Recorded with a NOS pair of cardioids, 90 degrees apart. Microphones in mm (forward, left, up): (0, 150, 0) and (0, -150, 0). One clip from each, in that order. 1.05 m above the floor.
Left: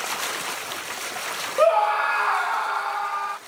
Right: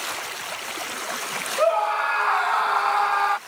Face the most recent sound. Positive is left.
turn(degrees=-50)